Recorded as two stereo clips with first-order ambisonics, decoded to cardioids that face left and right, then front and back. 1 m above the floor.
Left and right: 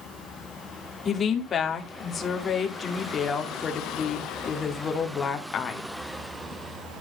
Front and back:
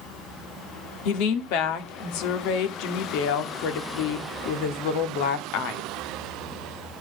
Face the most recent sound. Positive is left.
turn(degrees=25)